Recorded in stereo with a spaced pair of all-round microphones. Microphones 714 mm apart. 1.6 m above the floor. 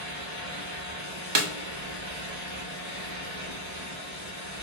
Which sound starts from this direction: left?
A fan, at 0.0 s.